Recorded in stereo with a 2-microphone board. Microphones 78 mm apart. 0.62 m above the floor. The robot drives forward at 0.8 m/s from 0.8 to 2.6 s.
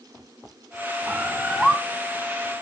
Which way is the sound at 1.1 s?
5° left (ahead or behind).